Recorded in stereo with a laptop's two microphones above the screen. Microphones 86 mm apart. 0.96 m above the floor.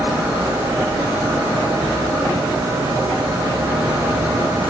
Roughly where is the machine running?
Right.